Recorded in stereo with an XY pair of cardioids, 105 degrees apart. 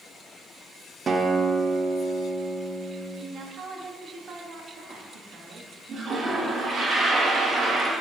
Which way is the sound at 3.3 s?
50° right.